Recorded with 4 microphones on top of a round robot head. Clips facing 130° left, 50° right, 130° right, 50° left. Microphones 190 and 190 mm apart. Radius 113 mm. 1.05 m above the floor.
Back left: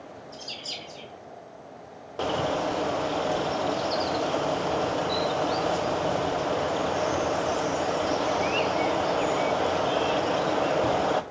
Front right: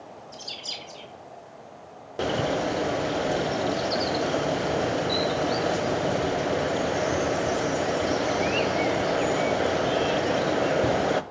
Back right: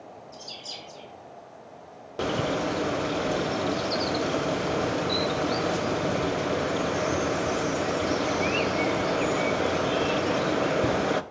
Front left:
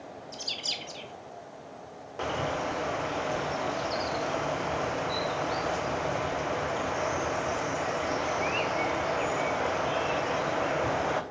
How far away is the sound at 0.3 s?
About 1.0 m.